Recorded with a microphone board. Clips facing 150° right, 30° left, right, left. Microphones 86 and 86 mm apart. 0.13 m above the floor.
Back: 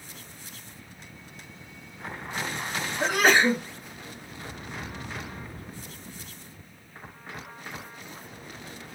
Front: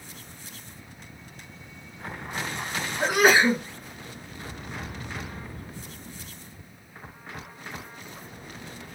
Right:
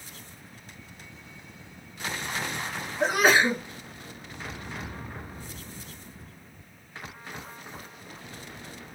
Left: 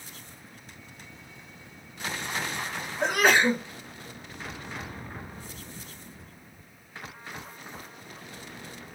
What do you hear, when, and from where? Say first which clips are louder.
3.0 s a sneeze: front 2 dB, right 1 dB; 30° right, 1.1 m